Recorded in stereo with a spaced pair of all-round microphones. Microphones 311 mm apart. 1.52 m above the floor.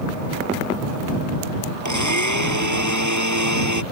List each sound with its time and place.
1.9 s a blender: 65° right (ahead or behind)